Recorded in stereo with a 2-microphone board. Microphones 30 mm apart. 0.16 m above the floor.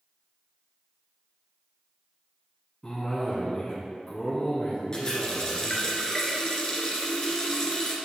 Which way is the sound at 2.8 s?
20° left (ahead or behind).